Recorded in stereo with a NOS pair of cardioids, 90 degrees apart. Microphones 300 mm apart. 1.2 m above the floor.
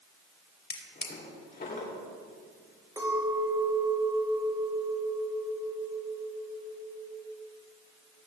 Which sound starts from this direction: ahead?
A clink, at 3.0 s.